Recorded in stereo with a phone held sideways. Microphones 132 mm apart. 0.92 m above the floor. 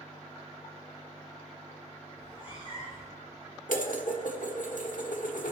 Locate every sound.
2.2 s a cat meowing: 35° left (ahead or behind), 5 m
3.7 s dishes clattering: 75° left (ahead or behind), 1.4 m